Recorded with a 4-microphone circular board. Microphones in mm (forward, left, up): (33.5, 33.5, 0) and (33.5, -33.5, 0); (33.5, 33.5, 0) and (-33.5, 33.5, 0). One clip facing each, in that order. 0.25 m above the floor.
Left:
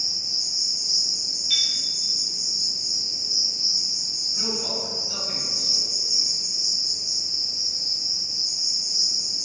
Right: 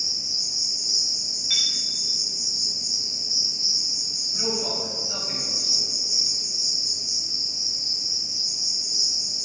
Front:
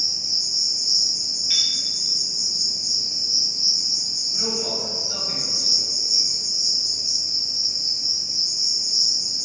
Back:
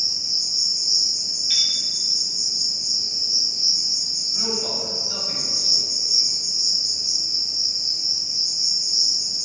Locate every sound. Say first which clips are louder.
0.0 s an insect: even, even; 60° right, 1.3 m
1.5 s a chime: left 1 dB, even; 75° right, 0.5 m
4.3 s a man speaking: right 2 dB, even; 75° right, 1.0 m